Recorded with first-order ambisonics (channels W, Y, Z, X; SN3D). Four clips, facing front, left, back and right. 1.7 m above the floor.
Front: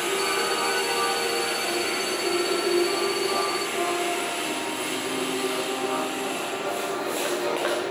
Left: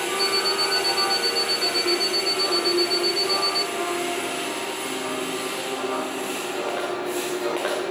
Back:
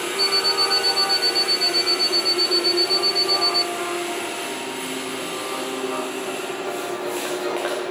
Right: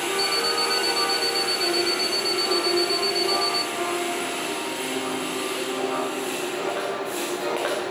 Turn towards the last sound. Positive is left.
turn(degrees=-125)